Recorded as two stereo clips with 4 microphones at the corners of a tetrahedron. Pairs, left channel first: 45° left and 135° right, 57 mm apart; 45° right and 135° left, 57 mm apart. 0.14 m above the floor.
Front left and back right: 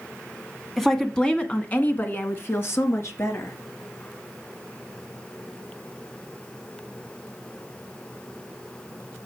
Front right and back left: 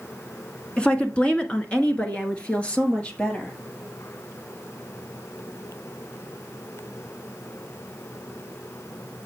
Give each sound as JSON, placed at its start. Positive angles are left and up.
{"t": 0.8, "sound": "a woman speaking", "azimuth_deg": -35, "distance_m": 1.3}